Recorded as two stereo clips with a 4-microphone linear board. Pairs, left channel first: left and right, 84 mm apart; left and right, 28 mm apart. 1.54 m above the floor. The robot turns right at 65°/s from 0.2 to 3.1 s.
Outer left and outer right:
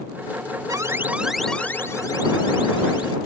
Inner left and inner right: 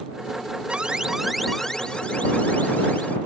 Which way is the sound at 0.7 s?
45° right.